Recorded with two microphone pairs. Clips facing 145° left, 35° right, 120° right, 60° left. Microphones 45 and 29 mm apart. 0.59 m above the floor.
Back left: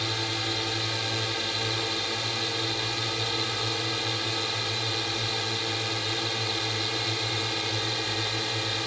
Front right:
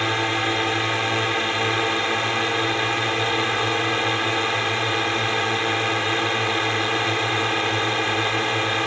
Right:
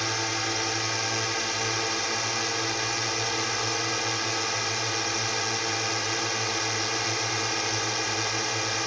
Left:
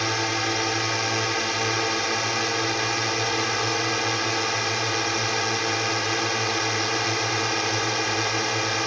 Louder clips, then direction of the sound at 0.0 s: Front right 9 dB, left 4 dB; 10° right.